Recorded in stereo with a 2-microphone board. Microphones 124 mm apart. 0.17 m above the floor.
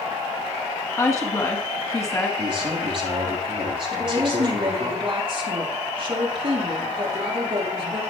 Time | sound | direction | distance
1.0 | a woman speaking | 25° left (ahead or behind) | 1.6 m
2.4 | a man speaking | 45° right (ahead or behind) | 4.5 m
3.9 | a woman speaking | 45° right (ahead or behind) | 3 m